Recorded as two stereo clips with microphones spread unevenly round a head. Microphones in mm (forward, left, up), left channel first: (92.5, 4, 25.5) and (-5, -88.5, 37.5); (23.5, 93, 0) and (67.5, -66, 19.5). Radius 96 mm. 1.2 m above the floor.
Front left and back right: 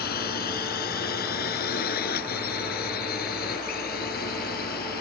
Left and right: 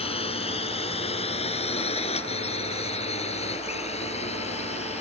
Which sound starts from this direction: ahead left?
A drone, at 0.0 s.